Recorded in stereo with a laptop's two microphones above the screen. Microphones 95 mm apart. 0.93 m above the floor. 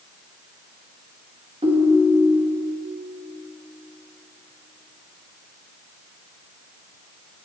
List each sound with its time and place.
1.6 s a ringtone: 75° right (ahead or behind), 0.9 m